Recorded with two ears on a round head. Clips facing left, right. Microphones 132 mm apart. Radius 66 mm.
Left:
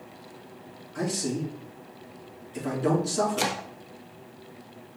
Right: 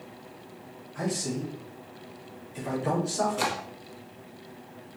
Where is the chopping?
25° left (ahead or behind), 0.7 m.